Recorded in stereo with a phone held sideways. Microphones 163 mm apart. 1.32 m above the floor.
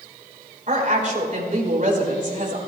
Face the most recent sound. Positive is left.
turn(degrees=-55)  # may be behind; listen again after turning